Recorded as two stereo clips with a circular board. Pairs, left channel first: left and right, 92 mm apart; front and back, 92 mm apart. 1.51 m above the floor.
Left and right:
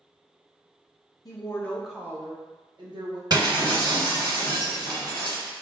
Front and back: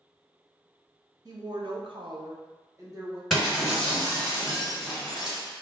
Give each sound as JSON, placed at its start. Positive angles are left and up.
{"t": 1.2, "sound": "a woman speaking", "azimuth_deg": 135, "distance_m": 0.6}
{"t": 3.3, "sound": "breaking glass", "azimuth_deg": -85, "distance_m": 1.9}